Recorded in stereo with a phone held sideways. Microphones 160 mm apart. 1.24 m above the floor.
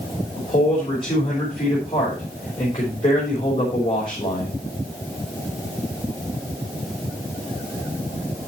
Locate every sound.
0.4 s a man speaking: 35° left (ahead or behind), 5.5 m